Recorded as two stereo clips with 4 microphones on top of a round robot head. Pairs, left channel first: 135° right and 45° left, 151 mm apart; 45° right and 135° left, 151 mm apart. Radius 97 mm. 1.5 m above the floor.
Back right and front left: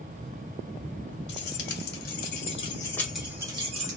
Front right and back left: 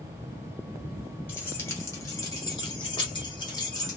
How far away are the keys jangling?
About 1.3 m.